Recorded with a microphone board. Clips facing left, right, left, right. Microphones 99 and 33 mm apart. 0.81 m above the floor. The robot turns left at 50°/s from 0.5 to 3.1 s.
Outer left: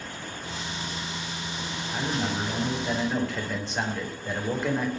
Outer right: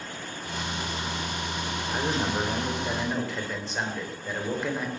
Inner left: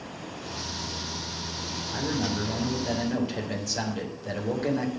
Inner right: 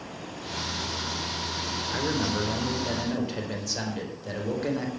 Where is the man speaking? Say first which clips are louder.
Outer right 1 dB, inner right 1 dB; 120° right, 4 m; by 4.9 s straight behind, 4 m.